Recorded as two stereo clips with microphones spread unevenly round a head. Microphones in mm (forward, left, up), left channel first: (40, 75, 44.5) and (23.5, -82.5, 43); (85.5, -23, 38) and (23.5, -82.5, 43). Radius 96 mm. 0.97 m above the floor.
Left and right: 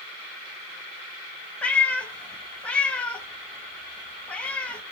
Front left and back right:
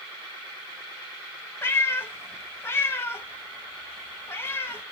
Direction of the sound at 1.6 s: 10° left.